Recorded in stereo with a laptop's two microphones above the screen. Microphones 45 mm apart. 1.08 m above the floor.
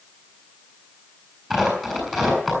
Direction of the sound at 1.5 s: 5° left (ahead or behind).